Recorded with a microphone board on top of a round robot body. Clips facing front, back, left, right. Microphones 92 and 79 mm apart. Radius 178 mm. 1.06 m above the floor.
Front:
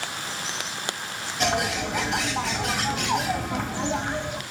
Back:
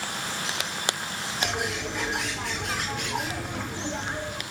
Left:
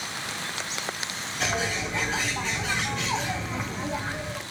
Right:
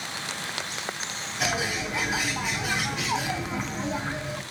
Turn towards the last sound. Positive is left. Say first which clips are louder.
# front 6 dB, even
turn(degrees=-5)